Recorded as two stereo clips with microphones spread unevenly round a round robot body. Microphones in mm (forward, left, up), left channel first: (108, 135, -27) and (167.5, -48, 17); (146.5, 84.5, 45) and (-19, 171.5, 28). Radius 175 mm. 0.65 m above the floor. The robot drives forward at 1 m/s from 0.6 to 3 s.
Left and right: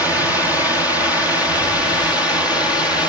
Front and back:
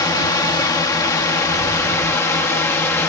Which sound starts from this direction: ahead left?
A drone, at 0.0 s.